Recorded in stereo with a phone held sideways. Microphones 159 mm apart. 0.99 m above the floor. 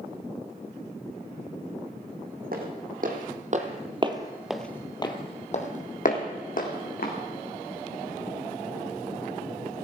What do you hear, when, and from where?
2.5 s footsteps: 70° right (ahead or behind), 3 m; by 7.1 s 70° left (ahead or behind), 4 m